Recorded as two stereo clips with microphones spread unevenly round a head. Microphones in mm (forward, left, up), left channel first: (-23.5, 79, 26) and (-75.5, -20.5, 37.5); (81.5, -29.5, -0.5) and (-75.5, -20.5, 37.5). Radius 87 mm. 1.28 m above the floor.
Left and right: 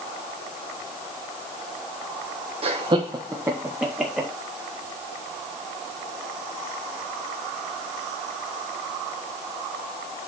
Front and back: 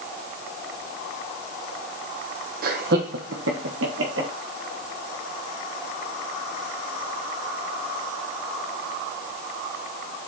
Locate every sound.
2.6 s laughter: 150° right, 1.3 m; by 4.3 s 155° left, 2.5 m